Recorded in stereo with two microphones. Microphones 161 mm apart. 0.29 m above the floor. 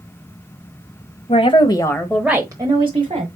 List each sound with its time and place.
1.3 s a woman speaking: 40° left (ahead or behind), 1.4 m; by 3.3 s 40° right (ahead or behind), 1.7 m